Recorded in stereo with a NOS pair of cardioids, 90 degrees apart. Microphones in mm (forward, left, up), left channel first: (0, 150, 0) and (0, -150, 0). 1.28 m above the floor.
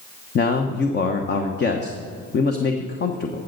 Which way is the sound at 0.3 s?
35° left.